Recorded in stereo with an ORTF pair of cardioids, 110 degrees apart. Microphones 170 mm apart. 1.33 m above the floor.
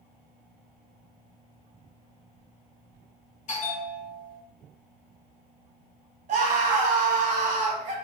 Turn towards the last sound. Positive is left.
turn(degrees=-45)